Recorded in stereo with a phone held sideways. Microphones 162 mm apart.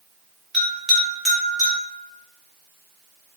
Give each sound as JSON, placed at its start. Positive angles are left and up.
{"t": 0.5, "sound": "a bell", "side_deg": 0, "distance_m": 1.3}